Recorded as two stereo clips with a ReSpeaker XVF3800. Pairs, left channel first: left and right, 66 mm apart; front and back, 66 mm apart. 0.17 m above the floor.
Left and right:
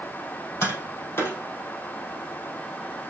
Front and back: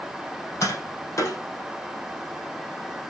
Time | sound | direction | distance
0.6 | tapping | 35° left | 4.5 m